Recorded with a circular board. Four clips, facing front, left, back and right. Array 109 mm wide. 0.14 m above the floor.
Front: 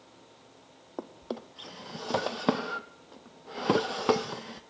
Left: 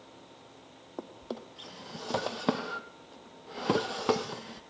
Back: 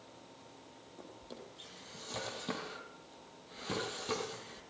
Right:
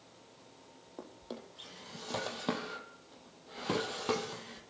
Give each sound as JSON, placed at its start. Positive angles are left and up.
{"t": 1.0, "sound": "a drawer", "azimuth_deg": 25, "distance_m": 1.1}